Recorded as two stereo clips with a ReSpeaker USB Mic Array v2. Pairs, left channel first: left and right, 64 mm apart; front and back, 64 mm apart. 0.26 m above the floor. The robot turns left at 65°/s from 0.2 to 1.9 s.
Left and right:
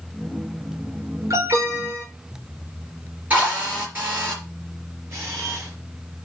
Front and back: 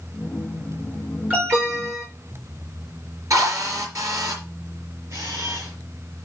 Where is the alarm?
115° right, 4.5 m; by 2.0 s 155° right, 4.5 m.